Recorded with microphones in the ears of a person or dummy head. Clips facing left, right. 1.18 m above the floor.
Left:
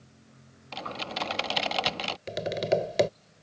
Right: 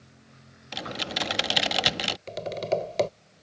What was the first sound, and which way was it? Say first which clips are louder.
Typing on a keyboard: right 2 dB; 15° right (ahead or behind).